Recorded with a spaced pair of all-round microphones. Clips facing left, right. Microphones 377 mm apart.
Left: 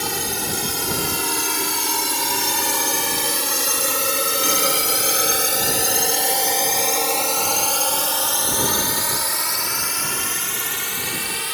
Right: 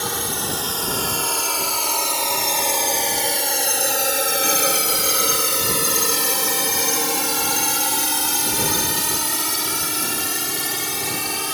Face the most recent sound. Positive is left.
turn(degrees=-60)  # may be behind; listen again after turning